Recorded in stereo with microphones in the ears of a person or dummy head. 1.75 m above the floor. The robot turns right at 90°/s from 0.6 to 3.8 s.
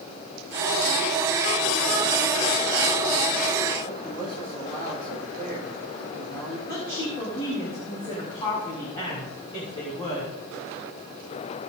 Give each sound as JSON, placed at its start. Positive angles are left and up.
{"t": 3.9, "sound": "a man speaking", "side_deg": 30, "distance_m": 8.0}
{"t": 6.7, "sound": "a woman speaking", "side_deg": 25, "distance_m": 3.5}